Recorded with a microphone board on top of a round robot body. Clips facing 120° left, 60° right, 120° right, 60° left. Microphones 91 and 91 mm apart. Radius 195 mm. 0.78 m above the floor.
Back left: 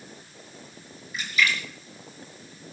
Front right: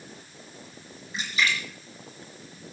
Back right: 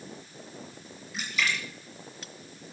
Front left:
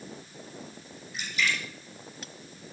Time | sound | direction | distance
1.1 | a splash | 120° right | 4 m